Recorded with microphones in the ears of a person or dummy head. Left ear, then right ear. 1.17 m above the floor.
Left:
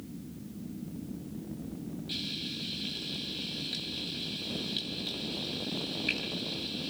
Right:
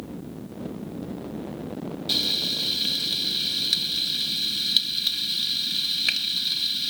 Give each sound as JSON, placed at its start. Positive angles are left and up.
{"t": 2.1, "sound": "frying", "side_deg": -55, "distance_m": 2.0}